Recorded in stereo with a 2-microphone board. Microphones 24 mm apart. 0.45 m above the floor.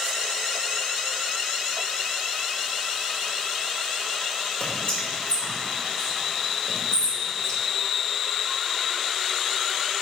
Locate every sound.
4.6 s whispering: 40° left (ahead or behind), 1.2 m